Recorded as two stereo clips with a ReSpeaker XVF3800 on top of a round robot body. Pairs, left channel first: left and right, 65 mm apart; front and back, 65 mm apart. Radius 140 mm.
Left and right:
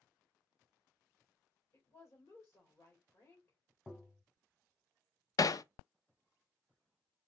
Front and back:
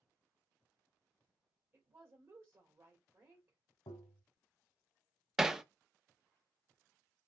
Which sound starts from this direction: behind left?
A woman speaking, at 1.7 s.